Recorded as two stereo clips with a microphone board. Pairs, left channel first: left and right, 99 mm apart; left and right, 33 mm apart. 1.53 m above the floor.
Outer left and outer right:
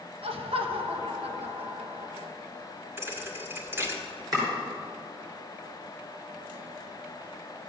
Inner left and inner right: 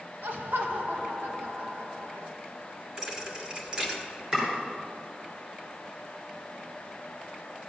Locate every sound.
0.2 s laughter: 70° right (ahead or behind), 1.2 m
3.0 s a thud: 25° right (ahead or behind), 1.6 m
4.3 s chopping: 40° right (ahead or behind), 5.5 m